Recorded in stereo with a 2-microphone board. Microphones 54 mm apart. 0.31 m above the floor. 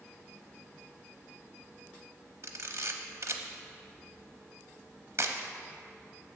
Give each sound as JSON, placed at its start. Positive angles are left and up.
{"t": 2.4, "sound": "a camera shutter", "side_deg": -55, "distance_m": 0.7}